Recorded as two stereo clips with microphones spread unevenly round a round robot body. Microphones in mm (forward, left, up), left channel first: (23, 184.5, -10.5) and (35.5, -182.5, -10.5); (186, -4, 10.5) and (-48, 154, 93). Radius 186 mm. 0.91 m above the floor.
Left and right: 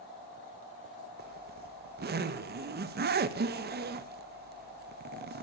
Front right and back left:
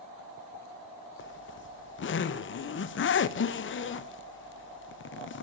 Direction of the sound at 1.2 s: 30° right.